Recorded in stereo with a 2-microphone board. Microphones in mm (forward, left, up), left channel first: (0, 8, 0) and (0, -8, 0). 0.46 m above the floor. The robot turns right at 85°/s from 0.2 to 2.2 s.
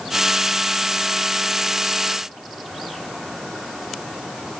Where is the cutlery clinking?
I don't hear cutlery clinking.